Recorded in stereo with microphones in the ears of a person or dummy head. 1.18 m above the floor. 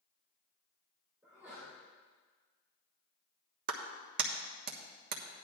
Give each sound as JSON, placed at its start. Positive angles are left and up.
{"t": 1.2, "sound": "a sneeze", "side_deg": -15, "distance_m": 3.5}
{"t": 3.7, "sound": "a clap", "side_deg": -60, "distance_m": 1.3}